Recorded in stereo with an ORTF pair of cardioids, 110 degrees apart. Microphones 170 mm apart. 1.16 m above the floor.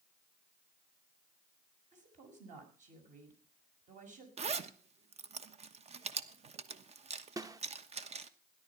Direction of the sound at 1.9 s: 50° right.